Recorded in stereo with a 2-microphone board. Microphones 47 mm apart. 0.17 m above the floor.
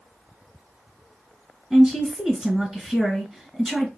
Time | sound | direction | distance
1.7 | a woman speaking | 10° right (ahead or behind) | 1.2 m